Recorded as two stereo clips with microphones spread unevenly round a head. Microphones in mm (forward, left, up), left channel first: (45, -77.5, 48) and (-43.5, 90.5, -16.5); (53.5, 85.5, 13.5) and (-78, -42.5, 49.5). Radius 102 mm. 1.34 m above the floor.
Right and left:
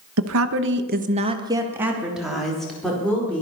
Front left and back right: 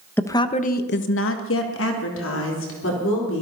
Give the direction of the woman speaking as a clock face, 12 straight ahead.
8 o'clock.